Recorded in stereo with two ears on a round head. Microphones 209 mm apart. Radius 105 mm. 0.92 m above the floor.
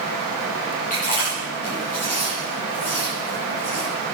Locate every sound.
0.9 s chewing: 35° left (ahead or behind), 9.5 m